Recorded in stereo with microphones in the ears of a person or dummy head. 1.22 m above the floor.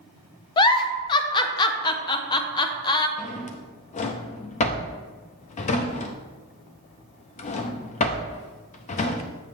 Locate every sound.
0.6 s a giggle: 20° left (ahead or behind), 0.5 m
3.2 s a drawer: 35° left (ahead or behind), 0.6 m